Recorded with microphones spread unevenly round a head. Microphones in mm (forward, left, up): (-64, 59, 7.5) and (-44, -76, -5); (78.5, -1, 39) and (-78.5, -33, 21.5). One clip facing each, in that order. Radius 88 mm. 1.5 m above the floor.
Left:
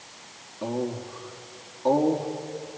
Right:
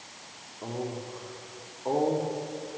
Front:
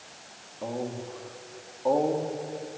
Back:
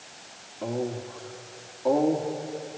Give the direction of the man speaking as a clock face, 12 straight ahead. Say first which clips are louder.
Left 5 dB, back 3 dB; 9 o'clock.